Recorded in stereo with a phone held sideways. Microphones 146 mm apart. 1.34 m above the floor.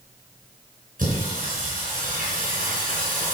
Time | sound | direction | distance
1.0 | singing | 70° right (ahead or behind) | 4.5 m